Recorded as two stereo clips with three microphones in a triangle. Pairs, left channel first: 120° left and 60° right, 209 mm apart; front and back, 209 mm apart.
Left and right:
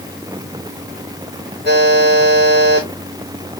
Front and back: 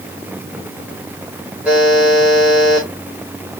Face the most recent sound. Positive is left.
turn(degrees=-95)